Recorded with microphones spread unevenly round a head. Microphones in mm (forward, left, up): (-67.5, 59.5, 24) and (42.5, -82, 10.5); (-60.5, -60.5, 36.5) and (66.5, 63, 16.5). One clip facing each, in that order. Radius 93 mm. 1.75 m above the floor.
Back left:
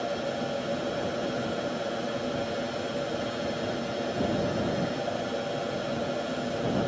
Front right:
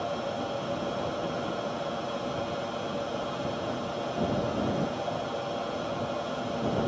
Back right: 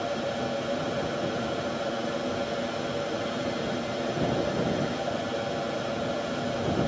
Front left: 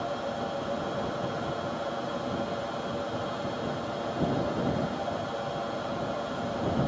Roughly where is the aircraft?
Behind.